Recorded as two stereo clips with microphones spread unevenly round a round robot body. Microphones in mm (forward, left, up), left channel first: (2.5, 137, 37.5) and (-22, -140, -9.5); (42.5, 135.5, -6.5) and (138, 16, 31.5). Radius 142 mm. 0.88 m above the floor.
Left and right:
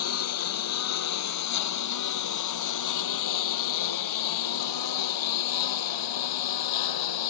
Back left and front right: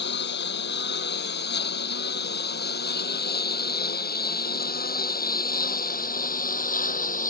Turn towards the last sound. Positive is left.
turn(degrees=90)